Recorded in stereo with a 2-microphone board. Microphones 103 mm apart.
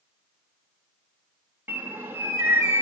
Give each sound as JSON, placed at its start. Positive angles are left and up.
{"t": 1.7, "sound": "a bird", "side_deg": -20, "distance_m": 0.7}